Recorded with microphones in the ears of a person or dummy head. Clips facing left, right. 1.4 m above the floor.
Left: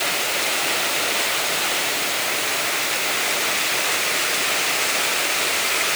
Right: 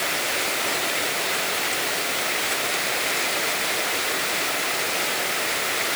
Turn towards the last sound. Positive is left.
No sound to turn to.